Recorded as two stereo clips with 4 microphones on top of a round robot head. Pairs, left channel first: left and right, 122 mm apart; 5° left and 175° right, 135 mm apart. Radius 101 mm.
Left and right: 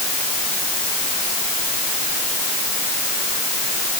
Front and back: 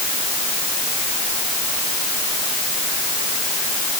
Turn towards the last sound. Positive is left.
No sound to turn to.